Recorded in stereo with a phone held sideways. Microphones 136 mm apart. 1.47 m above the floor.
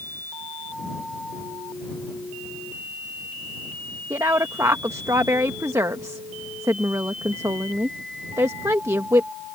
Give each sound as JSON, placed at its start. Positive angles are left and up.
{"t": 4.1, "sound": "a woman speaking", "side_deg": -20}